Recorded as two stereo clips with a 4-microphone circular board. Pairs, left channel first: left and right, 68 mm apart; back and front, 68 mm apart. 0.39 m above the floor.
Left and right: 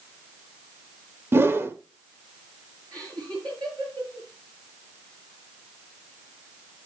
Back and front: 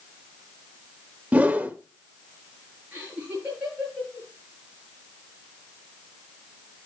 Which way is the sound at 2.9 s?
65° right.